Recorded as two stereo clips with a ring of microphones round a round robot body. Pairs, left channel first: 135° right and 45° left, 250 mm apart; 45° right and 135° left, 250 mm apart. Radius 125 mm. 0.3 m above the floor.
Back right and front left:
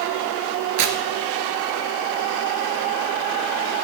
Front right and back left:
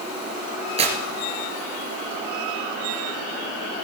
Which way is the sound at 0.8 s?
70° left.